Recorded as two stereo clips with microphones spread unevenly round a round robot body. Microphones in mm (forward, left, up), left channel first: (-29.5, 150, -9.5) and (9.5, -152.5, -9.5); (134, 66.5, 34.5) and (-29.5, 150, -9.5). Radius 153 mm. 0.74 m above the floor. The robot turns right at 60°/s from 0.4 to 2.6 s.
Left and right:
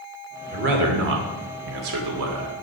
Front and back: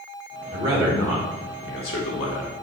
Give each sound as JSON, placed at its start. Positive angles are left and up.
{"t": 0.5, "sound": "a man speaking", "azimuth_deg": -145, "distance_m": 2.0}